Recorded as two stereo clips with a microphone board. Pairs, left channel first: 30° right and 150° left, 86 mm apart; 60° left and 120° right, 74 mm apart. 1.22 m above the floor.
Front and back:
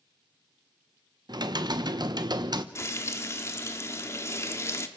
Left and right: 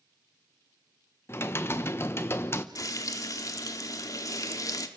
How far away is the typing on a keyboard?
About 1.0 m.